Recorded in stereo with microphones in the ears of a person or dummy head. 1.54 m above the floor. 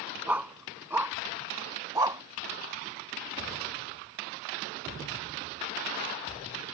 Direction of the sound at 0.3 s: 5° right (ahead or behind).